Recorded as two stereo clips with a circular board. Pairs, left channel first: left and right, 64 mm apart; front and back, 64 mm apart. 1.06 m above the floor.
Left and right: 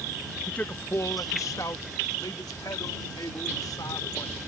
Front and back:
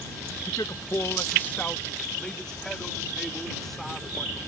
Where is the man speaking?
15° left; by 4.4 s 90° left.